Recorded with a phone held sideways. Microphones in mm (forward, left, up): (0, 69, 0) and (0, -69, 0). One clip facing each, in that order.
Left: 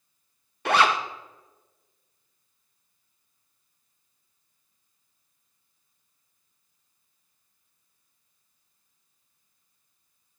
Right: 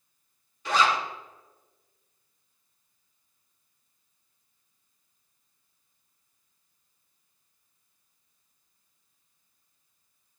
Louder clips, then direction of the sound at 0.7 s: Left 3 dB; 65° left (ahead or behind).